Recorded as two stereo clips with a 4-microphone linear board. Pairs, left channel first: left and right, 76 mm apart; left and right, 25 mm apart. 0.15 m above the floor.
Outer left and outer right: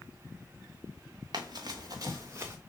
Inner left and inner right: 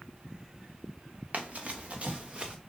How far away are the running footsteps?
About 1.5 m.